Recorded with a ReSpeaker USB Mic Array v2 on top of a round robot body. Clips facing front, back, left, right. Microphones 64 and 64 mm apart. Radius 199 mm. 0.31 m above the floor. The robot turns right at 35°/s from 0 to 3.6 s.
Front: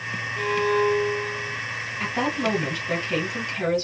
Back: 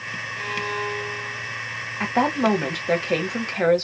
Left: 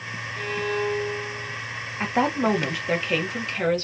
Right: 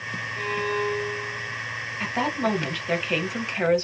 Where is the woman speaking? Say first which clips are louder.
Back 5 dB, left 3 dB; 145° left, 1.3 m; by 3.9 s 160° right, 1.3 m.